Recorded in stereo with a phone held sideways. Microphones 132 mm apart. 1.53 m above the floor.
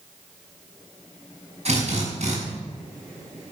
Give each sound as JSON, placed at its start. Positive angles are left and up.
{"t": 1.6, "sound": "a drill", "side_deg": -55, "distance_m": 6.5}